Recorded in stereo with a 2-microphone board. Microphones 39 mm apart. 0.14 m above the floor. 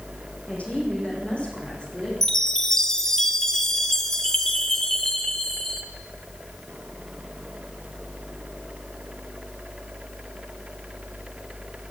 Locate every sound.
0.5 s a woman speaking: 35° left (ahead or behind), 8.5 m; by 2.1 s 25° left (ahead or behind), 9.5 m
2.2 s a chime: 10° left (ahead or behind), 2.0 m